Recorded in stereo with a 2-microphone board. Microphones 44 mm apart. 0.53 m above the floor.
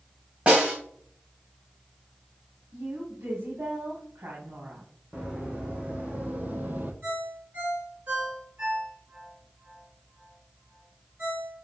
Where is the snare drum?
30° right (ahead or behind), 2.5 m.